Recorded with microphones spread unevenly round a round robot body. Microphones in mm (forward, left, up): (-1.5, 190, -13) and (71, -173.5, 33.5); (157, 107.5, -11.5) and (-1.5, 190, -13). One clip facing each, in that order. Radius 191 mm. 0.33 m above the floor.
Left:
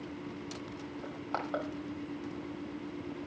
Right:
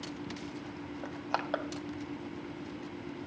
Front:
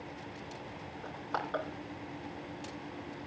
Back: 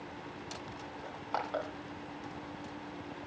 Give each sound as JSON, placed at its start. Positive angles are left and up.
{"t": 1.0, "sound": "crushing", "azimuth_deg": -125, "distance_m": 2.5}